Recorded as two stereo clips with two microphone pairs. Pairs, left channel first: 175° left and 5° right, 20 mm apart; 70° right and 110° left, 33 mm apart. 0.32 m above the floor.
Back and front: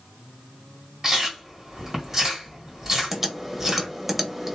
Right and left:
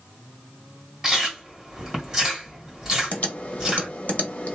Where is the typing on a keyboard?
80° right, 0.7 m.